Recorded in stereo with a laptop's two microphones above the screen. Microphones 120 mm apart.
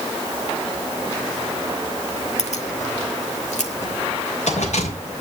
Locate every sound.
2.4 s keys jangling: 70° left (ahead or behind), 1.6 m; by 5.2 s 80° left, 4.5 m